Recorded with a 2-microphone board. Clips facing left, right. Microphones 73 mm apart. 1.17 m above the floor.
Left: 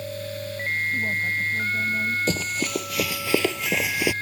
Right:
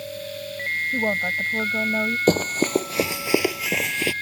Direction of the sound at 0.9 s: 85° right.